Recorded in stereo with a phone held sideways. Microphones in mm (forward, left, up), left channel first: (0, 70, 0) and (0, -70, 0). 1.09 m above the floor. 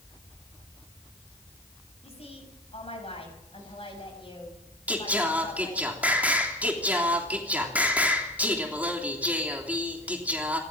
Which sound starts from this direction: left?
A woman speaking, at 2.0 s.